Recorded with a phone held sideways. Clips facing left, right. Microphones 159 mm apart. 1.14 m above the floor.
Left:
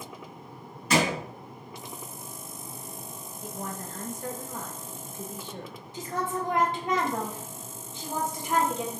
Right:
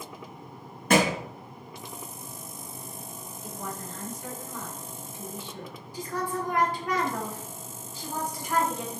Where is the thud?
60° right (ahead or behind), 0.9 m.